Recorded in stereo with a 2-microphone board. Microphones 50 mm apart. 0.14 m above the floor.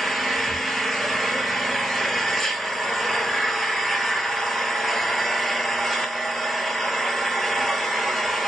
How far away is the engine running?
About 0.7 m.